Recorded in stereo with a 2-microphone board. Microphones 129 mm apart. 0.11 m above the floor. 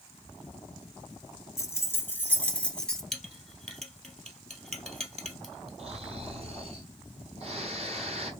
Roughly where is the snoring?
Right.